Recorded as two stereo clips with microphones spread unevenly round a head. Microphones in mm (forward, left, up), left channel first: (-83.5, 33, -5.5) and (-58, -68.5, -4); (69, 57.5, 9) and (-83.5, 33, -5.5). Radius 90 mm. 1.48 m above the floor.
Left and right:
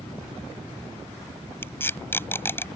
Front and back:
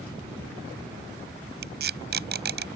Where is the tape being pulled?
175° left.